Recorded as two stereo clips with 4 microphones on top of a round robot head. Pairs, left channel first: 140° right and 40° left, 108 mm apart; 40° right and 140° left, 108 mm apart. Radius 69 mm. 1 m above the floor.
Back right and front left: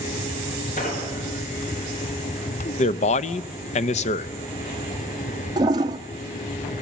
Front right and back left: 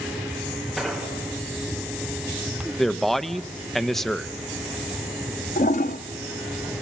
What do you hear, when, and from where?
0.8 s an explosion: 125° right, 3.5 m
2.8 s a man speaking: 125° right, 0.6 m
5.6 s a toilet flushing: 20° right, 0.6 m